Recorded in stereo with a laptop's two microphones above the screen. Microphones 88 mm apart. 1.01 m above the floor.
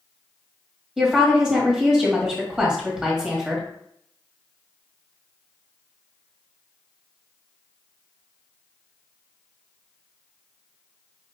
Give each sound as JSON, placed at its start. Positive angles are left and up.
{"t": 1.0, "sound": "a woman speaking", "side_deg": -10, "distance_m": 1.9}